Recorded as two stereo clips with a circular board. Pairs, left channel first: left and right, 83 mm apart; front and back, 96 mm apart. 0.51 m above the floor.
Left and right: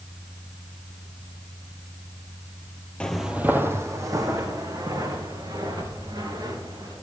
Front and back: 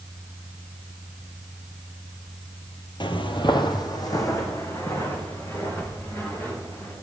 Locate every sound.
3.0 s footsteps: 15° left, 0.9 m; by 6.9 s 60° right, 6 m